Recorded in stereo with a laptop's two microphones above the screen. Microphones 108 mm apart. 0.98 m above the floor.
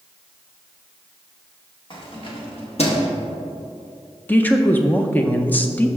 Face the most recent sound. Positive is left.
turn(degrees=15)  # may be behind; listen again after turning